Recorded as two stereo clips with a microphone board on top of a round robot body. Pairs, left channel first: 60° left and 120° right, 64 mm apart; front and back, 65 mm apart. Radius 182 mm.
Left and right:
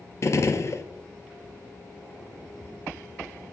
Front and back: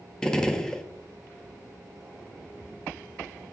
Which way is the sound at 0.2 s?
75° left.